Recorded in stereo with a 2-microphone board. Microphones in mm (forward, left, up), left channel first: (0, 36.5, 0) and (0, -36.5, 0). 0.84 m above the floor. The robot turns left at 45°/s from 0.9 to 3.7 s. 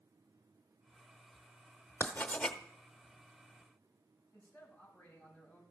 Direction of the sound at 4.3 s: 15° left (ahead or behind).